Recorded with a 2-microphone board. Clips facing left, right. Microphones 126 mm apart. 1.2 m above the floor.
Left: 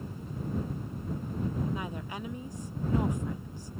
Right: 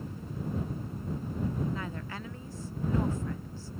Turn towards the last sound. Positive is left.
turn(degrees=15)  # may be behind; listen again after turning